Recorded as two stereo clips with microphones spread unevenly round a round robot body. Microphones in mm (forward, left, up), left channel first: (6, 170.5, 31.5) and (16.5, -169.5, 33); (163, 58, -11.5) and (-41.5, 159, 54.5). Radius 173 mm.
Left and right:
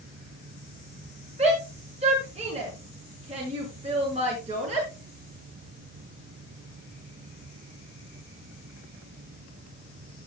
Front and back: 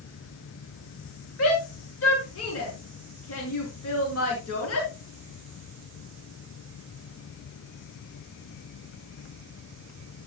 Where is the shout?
15° right, 6 m.